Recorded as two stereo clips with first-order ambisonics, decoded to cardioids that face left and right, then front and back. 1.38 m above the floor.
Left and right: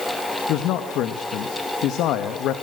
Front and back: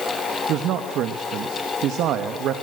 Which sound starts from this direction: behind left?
A man speaking, at 0.5 s.